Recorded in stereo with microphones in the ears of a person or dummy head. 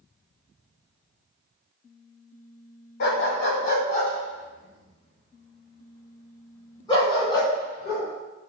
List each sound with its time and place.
3.0 s a dog barking: 55° left (ahead or behind), 2.0 m; by 8.0 s 20° left (ahead or behind), 4 m